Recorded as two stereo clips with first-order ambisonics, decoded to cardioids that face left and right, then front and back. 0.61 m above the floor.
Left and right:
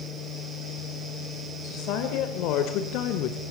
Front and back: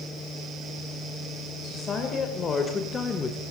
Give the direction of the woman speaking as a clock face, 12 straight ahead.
10 o'clock.